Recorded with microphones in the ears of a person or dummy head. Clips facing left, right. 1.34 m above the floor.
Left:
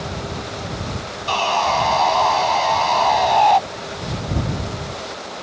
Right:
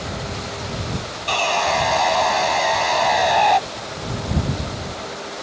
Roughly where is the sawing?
Right.